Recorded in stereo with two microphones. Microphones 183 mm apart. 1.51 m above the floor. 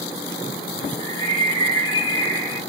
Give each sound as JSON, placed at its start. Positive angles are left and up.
{"t": 1.0, "sound": "a bird", "side_deg": -30, "distance_m": 2.0}